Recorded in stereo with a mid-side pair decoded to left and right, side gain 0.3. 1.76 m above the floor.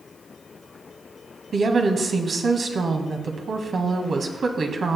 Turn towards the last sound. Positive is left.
turn(degrees=-60)